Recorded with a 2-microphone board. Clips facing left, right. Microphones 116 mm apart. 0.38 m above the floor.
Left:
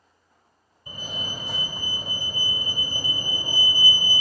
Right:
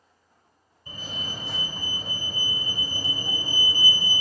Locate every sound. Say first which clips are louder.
0.9 s a fire alarm: left 2 dB; 15° left (ahead or behind), 2.5 m